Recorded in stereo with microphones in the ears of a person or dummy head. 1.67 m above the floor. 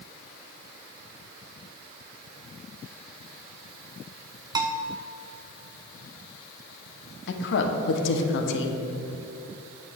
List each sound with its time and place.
4.5 s a bell: 20° right (ahead or behind), 0.5 m
7.3 s a woman speaking: 70° left (ahead or behind), 1.1 m